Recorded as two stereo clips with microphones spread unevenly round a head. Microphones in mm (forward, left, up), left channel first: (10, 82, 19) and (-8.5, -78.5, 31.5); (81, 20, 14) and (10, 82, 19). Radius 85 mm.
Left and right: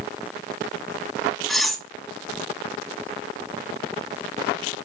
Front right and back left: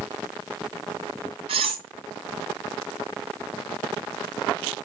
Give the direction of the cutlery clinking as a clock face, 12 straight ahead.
6 o'clock.